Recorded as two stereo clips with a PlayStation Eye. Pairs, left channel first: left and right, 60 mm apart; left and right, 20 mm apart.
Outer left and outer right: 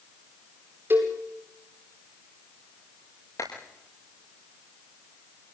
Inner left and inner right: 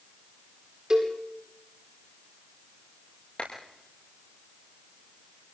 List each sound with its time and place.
0.9 s a cowbell: 30° right (ahead or behind), 9 m
3.4 s a clap: 60° left (ahead or behind), 8.5 m